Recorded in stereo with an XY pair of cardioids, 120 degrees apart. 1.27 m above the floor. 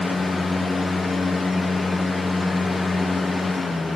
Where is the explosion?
I don't hear an explosion.